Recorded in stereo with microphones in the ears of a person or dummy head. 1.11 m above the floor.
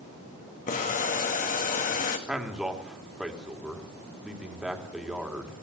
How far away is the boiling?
About 2 m.